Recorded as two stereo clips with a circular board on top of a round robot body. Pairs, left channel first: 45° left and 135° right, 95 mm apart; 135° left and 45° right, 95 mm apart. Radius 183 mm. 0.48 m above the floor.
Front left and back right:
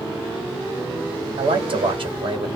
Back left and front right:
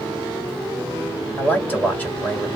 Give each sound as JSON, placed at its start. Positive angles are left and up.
{"t": 1.4, "sound": "a man speaking", "azimuth_deg": -145, "distance_m": 1.8}